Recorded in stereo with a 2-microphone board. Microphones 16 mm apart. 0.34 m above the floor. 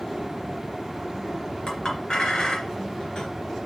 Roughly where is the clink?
Left.